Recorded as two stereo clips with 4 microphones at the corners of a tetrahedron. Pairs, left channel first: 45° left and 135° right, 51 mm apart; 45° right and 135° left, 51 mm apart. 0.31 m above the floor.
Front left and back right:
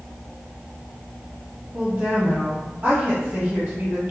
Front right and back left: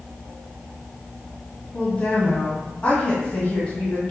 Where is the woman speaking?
80° right, 1.4 m.